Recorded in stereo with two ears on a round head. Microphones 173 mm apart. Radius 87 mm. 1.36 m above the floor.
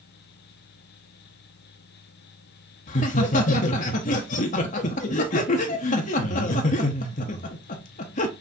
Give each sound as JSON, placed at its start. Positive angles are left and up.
{"t": 2.9, "sound": "laughter", "side_deg": 35, "distance_m": 0.7}